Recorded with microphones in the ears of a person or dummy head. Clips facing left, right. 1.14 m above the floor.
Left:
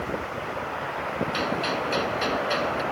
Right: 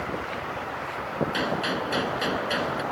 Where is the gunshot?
5° right (ahead or behind).